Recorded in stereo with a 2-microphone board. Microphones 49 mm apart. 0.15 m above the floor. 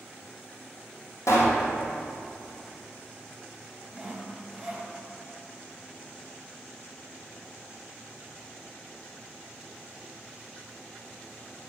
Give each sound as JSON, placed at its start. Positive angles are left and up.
{"t": 1.3, "sound": "a pop", "side_deg": 80, "distance_m": 2.0}
{"t": 3.9, "sound": "sawing", "side_deg": -5, "distance_m": 1.2}